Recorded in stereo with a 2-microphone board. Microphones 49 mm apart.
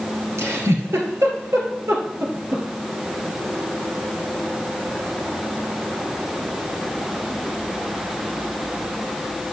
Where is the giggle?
85° right, 2 m.